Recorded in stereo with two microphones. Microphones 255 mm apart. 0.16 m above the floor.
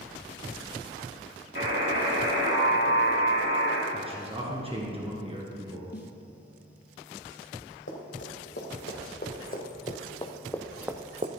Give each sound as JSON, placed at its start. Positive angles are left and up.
{"t": 1.6, "sound": "a buzzer", "side_deg": -55, "distance_m": 3.0}
{"t": 3.9, "sound": "a man speaking", "side_deg": -25, "distance_m": 1.9}
{"t": 5.9, "sound": "a snare drum", "side_deg": 45, "distance_m": 0.6}
{"t": 7.9, "sound": "running footsteps", "side_deg": 50, "distance_m": 3.0}